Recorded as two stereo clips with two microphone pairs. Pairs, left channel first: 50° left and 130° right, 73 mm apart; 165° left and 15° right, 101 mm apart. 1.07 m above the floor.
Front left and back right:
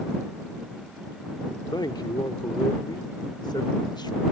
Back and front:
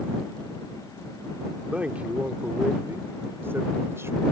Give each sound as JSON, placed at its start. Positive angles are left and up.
{"t": 1.7, "sound": "a man speaking", "azimuth_deg": 65}